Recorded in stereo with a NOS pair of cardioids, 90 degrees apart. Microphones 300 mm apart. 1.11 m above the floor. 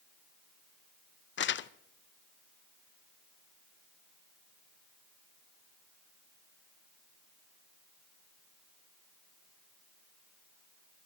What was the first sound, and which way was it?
Crumpling, 40° left.